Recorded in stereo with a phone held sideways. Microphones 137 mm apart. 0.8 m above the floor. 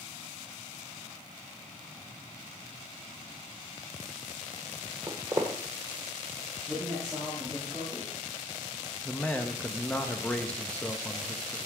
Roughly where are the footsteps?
Right.